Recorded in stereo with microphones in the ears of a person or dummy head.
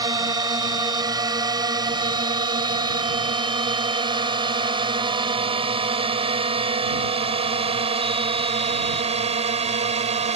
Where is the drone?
15° right (ahead or behind); by 10.4 s 35° right (ahead or behind).